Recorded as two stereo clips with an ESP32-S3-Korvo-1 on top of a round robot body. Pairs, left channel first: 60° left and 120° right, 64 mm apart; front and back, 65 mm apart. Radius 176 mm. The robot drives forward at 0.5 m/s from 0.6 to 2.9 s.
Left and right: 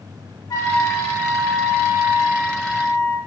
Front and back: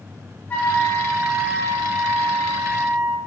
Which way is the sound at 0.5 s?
65° left.